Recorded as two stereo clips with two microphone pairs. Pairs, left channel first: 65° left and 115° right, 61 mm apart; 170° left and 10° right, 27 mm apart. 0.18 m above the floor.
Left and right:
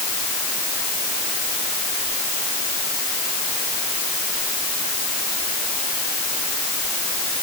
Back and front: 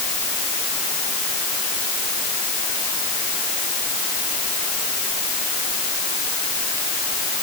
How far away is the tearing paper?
No tearing paper in this recording.